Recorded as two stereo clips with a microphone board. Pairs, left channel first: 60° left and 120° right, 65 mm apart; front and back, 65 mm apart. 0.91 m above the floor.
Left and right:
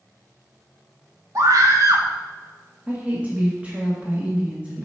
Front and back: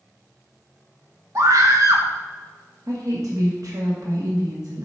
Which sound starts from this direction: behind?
A woman speaking, at 2.9 s.